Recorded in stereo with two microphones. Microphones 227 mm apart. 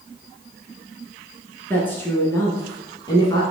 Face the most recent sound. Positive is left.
turn(degrees=20)  # may be behind; listen again after turning